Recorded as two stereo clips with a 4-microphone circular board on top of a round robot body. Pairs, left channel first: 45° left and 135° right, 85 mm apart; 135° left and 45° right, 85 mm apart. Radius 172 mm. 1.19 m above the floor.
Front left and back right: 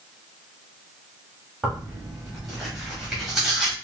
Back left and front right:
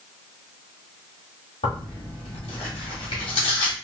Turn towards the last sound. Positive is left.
turn(degrees=140)